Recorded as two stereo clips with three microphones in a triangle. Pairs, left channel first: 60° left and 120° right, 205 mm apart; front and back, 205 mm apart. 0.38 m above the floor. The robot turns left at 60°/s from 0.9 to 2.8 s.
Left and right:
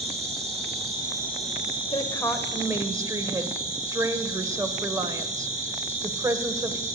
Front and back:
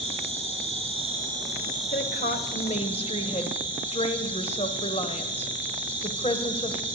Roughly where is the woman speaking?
Ahead.